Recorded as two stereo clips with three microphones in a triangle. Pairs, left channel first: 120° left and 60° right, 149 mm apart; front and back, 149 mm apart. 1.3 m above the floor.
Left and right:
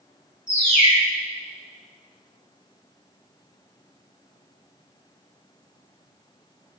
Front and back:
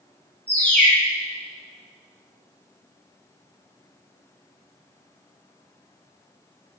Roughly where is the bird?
Left.